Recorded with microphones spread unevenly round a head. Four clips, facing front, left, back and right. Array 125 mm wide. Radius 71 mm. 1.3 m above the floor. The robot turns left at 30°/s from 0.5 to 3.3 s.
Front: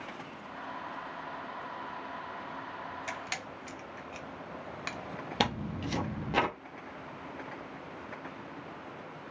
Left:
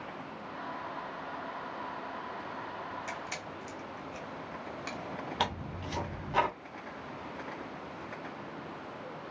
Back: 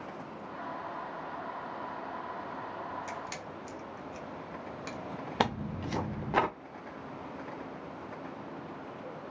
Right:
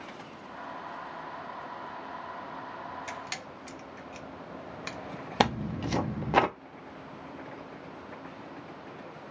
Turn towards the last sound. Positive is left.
turn(degrees=-90)